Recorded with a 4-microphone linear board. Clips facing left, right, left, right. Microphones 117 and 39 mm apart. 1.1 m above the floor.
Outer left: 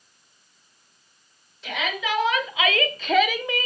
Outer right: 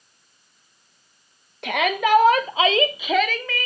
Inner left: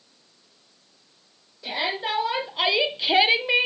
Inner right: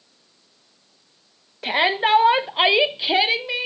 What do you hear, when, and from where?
1.6 s a shout: 60° right (ahead or behind), 1.3 m; by 3.7 s 25° left (ahead or behind), 0.9 m